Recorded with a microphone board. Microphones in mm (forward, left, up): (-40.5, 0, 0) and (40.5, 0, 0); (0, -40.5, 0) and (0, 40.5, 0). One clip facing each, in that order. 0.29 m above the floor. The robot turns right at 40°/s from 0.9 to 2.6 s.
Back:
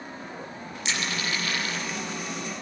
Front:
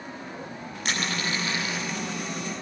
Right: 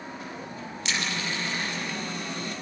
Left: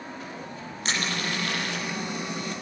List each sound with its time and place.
0.8 s crushing: 40° left, 7 m; by 1.9 s 85° left, 7 m